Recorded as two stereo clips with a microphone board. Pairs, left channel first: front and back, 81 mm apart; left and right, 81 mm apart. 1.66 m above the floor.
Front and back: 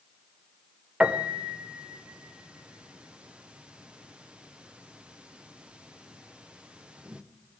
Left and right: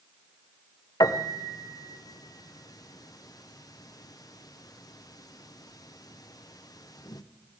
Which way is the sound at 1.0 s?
105° left.